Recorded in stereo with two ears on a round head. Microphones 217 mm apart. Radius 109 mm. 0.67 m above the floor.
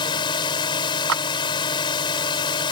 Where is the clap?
65° right (ahead or behind).